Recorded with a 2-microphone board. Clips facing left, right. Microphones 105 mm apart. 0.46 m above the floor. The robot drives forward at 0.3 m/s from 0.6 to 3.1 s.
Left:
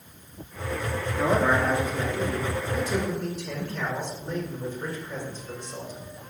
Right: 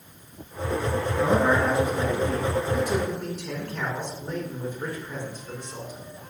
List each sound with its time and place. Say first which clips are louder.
1.2 s a man speaking: right 1 dB; 65° right (ahead or behind), 5.5 m; by 6.1 s 60° right (ahead or behind), 5.5 m